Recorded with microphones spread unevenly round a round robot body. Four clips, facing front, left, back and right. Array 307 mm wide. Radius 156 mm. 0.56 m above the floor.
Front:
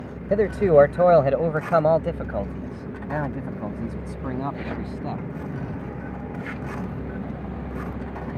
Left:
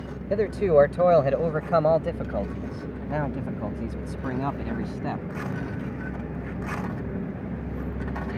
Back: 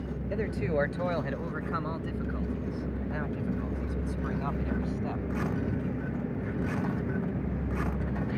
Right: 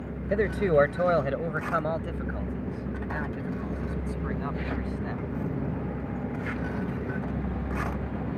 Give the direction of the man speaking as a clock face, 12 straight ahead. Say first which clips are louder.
Left 3 dB, front 14 dB; 12 o'clock.